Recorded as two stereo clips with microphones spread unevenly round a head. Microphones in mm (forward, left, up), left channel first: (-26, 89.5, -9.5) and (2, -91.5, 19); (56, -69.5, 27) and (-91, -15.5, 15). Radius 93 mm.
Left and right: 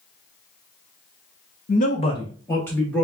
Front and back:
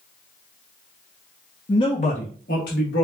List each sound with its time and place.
1.7 s a man speaking: 55° left, 1.0 m; by 3.0 s 15° left, 1.8 m